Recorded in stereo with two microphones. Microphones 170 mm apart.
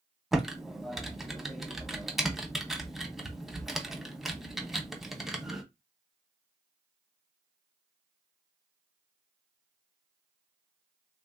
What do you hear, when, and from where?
0.3 s typing on a keyboard: centre (ahead or behind), 0.7 m